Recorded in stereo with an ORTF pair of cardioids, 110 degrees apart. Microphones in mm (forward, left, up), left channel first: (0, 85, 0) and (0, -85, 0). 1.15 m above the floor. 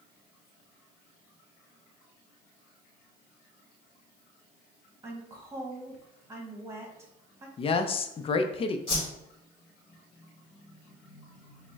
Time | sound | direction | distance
5.0 | a woman speaking | 15° right | 1.2 m
7.6 | a woman speaking | 35° left | 0.5 m
8.9 | a whoosh | 30° left | 2.0 m